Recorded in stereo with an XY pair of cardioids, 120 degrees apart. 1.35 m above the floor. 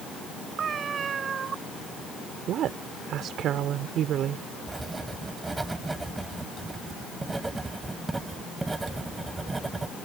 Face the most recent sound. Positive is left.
turn(degrees=-15)